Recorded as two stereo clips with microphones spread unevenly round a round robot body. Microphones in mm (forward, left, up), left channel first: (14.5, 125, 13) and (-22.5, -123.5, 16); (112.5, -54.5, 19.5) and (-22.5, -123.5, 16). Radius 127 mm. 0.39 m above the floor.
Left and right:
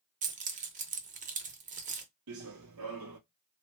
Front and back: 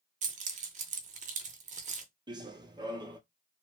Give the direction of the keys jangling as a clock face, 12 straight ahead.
5 o'clock.